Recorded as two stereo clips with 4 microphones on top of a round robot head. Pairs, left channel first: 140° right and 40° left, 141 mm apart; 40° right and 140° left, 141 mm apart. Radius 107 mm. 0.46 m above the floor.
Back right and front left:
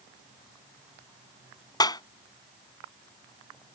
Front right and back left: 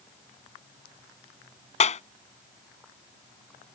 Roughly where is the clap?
Right.